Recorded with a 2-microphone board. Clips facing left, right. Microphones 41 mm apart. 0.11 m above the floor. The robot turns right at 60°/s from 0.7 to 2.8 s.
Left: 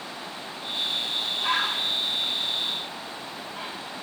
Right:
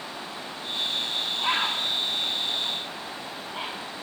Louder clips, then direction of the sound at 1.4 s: Even; 25° right (ahead or behind).